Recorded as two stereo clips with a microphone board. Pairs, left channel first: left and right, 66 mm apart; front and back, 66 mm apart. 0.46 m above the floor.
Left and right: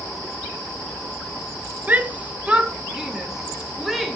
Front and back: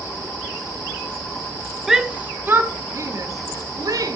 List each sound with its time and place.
1.9 s a shout: 105° right, 0.8 m; by 4.2 s 175° right, 1.6 m